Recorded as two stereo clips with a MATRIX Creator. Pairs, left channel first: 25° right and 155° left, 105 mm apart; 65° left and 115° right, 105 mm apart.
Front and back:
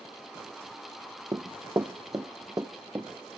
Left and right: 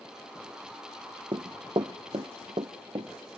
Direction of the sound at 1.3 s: 150° right.